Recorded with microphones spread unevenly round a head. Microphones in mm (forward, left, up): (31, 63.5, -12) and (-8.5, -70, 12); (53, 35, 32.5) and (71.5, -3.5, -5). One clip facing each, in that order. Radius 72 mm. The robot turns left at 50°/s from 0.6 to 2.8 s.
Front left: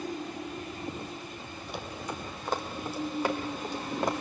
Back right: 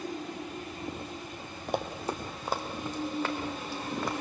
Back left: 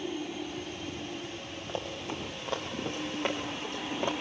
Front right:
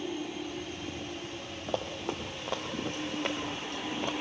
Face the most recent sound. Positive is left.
turn(degrees=145)